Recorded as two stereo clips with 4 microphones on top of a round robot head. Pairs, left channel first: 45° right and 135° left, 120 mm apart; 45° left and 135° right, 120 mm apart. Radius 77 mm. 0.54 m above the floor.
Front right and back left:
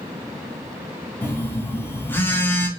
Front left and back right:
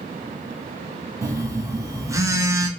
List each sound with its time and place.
1.2 s a phone buzzing: 100° right, 0.7 m